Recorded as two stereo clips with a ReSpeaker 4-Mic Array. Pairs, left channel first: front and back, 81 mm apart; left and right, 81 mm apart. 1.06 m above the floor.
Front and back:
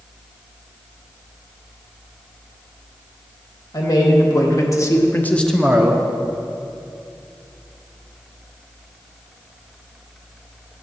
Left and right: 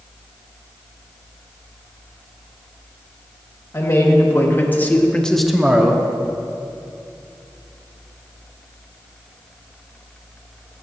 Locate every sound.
3.7 s a man speaking: 35° left, 1.3 m; by 6.0 s 135° right, 0.6 m